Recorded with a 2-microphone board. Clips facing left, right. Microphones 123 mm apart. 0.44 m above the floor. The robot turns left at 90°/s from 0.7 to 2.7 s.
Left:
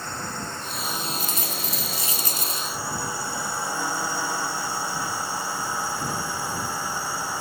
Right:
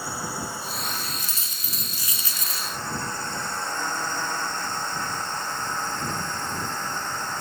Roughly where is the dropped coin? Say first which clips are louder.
Left 9 dB; behind right.